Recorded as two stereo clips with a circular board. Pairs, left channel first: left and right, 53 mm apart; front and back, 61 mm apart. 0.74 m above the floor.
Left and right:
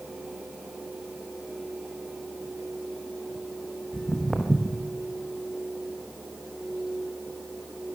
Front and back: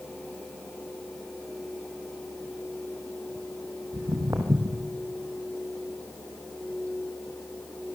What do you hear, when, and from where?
3.9 s footsteps: 175° right, 2.5 m